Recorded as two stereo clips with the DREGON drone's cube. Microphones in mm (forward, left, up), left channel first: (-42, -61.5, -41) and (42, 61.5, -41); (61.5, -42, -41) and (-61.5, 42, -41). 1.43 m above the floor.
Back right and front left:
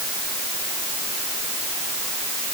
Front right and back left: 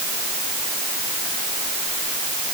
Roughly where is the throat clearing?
No throat clearing in this recording.